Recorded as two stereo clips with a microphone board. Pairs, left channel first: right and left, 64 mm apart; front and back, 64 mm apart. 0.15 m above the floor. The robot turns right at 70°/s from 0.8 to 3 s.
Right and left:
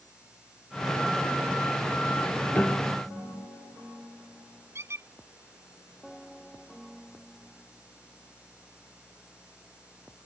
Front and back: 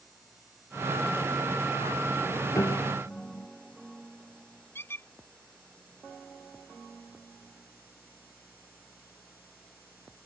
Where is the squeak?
50° left.